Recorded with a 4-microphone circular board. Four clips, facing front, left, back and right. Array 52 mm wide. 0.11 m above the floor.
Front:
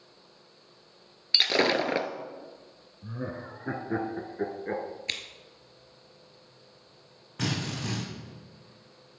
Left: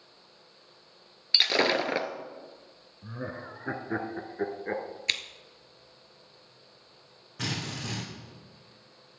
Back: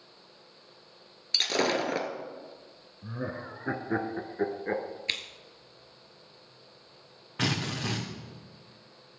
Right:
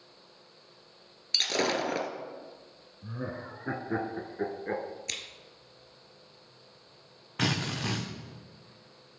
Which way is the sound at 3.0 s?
145° left.